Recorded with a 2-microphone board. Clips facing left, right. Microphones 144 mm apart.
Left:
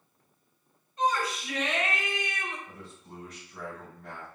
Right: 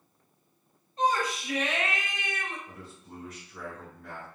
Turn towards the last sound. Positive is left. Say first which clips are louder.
# right 1 dB
turn(degrees=30)  # may be behind; listen again after turning